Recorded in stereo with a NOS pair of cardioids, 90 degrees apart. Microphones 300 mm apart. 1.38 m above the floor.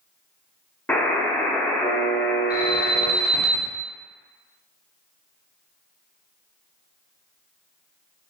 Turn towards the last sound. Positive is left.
turn(degrees=-20)